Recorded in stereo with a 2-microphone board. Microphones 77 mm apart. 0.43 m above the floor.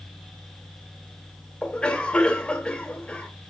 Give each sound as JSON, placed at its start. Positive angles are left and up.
{"t": 1.6, "sound": "a cough", "side_deg": 10, "distance_m": 2.0}